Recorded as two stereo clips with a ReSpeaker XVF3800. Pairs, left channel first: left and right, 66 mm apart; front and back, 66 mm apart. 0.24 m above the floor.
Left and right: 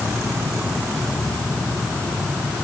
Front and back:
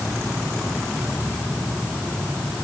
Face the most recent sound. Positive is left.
No sound to turn to.